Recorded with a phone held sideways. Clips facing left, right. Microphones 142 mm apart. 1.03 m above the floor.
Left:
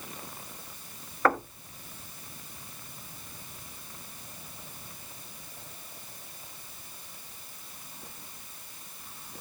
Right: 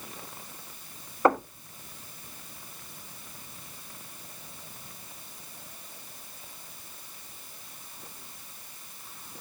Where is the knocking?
25° right (ahead or behind), 1.2 m.